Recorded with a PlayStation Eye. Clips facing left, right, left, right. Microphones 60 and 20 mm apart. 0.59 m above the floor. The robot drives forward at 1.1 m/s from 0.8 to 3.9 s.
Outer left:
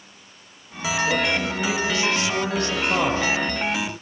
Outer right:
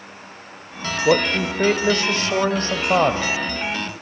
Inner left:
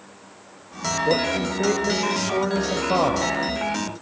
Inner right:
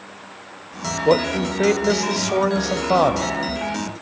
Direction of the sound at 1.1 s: 65° right (ahead or behind).